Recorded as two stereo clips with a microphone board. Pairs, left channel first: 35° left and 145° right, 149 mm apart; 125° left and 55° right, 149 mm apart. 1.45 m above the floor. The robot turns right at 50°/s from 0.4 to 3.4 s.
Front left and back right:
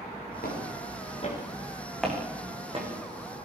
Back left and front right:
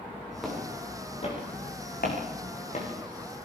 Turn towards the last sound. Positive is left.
turn(degrees=-165)